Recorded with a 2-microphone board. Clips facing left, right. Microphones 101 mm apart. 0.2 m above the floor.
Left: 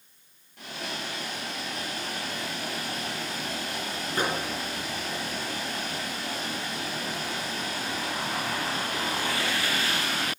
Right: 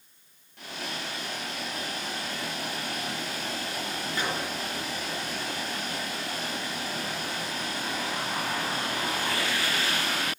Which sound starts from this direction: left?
A microwave, at 4.2 s.